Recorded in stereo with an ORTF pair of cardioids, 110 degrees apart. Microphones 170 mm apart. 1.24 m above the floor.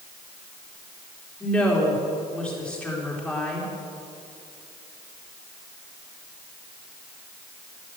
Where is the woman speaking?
5° left, 3.5 m.